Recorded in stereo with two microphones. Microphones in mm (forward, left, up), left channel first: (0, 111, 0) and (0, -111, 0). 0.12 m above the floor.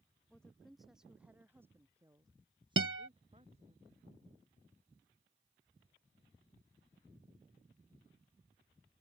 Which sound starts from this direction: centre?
A woman speaking, at 0.3 s.